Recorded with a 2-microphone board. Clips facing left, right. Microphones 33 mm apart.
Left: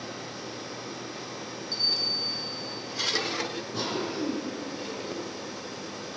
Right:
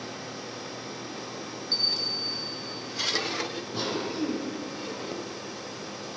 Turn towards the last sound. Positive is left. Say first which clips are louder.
# right 1 dB
turn(degrees=-10)  # may be behind; listen again after turning